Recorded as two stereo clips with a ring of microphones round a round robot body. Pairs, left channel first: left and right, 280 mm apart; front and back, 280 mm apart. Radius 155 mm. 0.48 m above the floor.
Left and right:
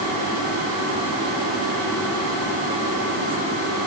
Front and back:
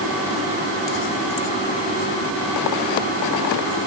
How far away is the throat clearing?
I don't hear throat clearing.